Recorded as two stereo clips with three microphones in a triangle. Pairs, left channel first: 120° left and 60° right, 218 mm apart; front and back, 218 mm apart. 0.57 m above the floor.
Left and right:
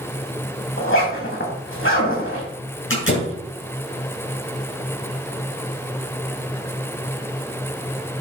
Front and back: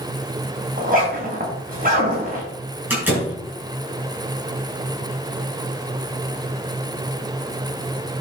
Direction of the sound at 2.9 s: 100° left.